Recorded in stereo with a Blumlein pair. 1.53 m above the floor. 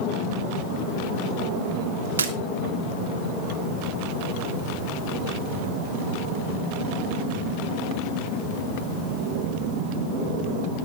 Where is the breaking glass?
70° right, 2.5 m.